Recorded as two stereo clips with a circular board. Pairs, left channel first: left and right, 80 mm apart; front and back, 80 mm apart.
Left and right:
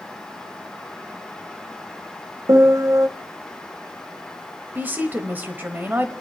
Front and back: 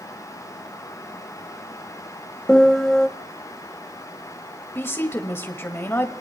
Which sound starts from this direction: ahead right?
A woman speaking, at 4.8 s.